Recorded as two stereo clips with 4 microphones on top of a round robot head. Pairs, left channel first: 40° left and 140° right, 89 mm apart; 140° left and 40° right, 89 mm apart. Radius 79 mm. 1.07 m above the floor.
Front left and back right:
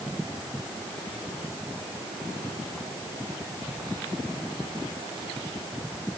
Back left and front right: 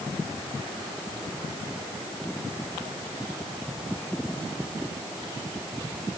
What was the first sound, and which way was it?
Only background noise.